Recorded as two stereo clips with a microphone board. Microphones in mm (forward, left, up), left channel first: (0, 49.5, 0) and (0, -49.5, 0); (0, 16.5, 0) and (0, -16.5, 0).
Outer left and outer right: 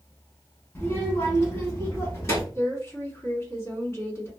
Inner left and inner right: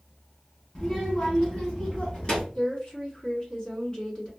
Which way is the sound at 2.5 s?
30° left (ahead or behind).